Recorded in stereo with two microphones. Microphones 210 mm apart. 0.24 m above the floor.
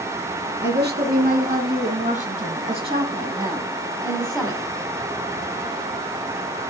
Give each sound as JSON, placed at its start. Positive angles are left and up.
{"t": 0.6, "sound": "a woman speaking", "side_deg": -55, "distance_m": 2.5}